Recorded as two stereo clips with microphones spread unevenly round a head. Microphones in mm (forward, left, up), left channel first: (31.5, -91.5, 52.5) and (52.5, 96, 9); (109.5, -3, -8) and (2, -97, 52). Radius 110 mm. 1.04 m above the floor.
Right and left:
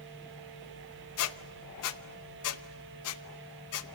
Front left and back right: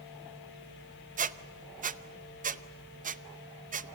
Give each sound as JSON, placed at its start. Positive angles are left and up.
{"t": 1.2, "sound": "a squeak", "azimuth_deg": -100, "distance_m": 0.8}